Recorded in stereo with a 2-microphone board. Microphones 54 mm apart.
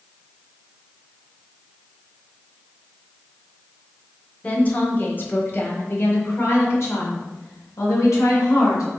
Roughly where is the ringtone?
No ringtone in this recording.